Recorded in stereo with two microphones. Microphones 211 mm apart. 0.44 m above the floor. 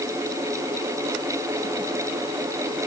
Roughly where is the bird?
I don't hear a bird.